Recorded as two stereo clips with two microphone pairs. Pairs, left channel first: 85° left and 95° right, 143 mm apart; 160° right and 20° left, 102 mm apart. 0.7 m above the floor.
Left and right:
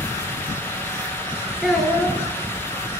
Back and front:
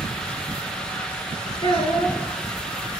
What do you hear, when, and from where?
1.6 s a child speaking: 175° left, 9.5 m